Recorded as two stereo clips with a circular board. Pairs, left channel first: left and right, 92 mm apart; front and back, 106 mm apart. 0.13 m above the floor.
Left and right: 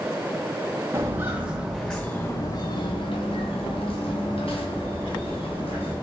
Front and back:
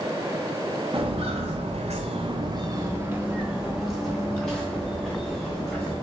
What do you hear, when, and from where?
0.9 s footsteps: 150° right, 1.0 m; by 5.9 s 80° left, 2.5 m